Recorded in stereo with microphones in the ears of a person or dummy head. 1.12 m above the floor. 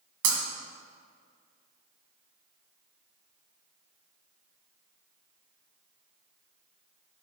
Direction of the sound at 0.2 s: 70° right (ahead or behind).